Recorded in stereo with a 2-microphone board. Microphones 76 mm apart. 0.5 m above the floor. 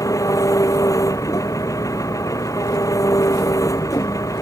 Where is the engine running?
50° left (ahead or behind).